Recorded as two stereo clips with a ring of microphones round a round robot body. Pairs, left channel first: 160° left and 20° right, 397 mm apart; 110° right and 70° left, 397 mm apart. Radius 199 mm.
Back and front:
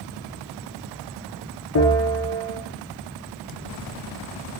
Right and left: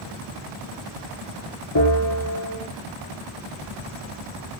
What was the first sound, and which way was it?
A bell, 150° right.